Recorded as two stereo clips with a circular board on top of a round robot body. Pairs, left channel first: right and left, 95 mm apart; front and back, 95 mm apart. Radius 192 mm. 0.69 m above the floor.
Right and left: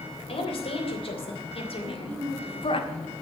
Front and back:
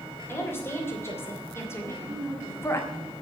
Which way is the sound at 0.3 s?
65° right.